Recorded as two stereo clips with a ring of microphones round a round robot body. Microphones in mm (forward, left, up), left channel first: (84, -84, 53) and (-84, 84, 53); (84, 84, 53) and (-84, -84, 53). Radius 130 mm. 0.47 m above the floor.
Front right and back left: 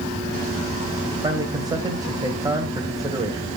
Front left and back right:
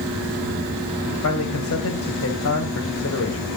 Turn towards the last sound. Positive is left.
turn(degrees=60)